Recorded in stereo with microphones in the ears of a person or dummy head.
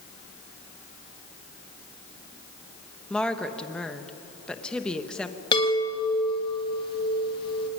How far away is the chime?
About 1.8 m.